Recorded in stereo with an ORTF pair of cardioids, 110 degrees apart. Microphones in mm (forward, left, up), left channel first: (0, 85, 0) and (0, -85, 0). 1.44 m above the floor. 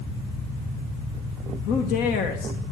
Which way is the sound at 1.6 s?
60° left.